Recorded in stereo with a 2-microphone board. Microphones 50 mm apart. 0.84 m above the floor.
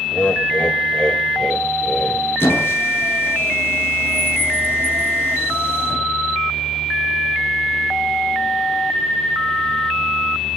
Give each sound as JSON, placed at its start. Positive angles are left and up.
{"t": 0.1, "sound": "laughter", "side_deg": 30, "distance_m": 3.5}
{"t": 2.4, "sound": "a squeak", "side_deg": 45, "distance_m": 8.0}